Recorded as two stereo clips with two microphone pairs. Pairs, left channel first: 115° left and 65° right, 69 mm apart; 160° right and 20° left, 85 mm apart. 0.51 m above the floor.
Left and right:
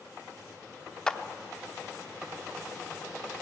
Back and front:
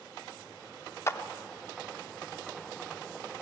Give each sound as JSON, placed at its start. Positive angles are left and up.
{"t": 1.1, "sound": "a clap", "azimuth_deg": -170, "distance_m": 0.8}